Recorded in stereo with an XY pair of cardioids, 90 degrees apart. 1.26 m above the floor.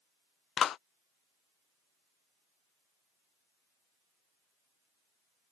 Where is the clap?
70° left.